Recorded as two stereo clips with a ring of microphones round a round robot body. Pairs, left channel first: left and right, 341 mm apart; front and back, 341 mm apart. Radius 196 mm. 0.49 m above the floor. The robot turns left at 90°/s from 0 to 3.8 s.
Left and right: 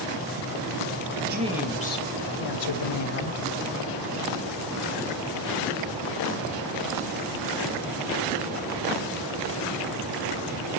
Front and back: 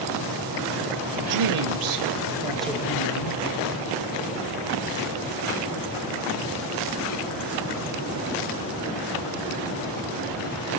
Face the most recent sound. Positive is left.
turn(degrees=-15)